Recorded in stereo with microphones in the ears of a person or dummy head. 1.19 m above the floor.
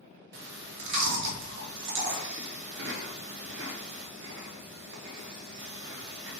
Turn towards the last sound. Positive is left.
turn(degrees=-55)  # may be behind; listen again after turning